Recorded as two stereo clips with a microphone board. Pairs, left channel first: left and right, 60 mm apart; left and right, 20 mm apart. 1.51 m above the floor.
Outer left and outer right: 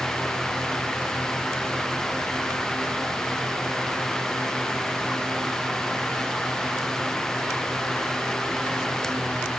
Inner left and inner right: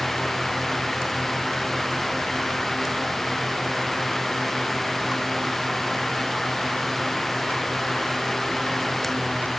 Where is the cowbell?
I don't hear a cowbell.